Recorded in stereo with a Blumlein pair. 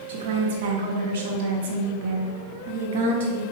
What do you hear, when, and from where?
0.1 s a woman speaking: 55° right, 0.8 m